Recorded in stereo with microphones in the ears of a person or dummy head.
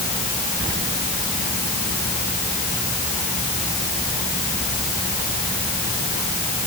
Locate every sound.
Only background noise.